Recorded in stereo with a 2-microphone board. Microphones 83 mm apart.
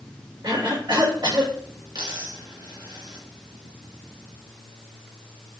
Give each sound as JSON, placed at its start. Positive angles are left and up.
{"t": 0.4, "sound": "a cough", "side_deg": -70, "distance_m": 4.5}
{"t": 1.9, "sound": "a dropped coin", "side_deg": -75, "distance_m": 3.5}